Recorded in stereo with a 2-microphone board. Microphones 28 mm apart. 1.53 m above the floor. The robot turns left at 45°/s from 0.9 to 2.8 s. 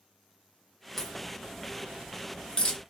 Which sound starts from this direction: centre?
A crack, at 1.0 s.